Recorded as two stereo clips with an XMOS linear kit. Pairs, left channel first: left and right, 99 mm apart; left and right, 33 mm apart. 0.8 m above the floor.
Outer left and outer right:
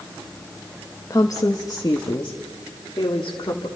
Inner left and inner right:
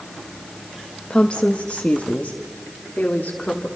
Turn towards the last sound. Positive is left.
turn(degrees=50)  # may be behind; listen again after turning